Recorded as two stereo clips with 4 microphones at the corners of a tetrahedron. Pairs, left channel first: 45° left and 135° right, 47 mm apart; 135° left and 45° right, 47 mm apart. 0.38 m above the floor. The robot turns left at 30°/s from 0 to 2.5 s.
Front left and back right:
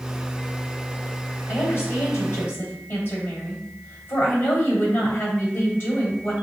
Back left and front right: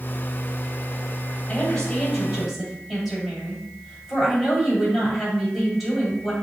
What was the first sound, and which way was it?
A woman speaking, 75° left.